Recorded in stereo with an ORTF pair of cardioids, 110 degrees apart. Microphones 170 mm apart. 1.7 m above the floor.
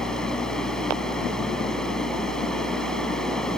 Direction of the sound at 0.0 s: 5° left.